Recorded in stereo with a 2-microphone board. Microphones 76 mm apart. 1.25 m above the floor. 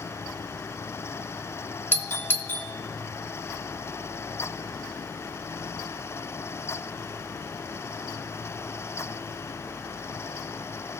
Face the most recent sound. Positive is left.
turn(degrees=25)  # may be behind; listen again after turning